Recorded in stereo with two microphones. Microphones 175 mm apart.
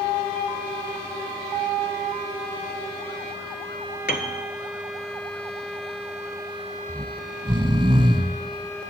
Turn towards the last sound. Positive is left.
turn(degrees=-25)  # may be behind; listen again after turning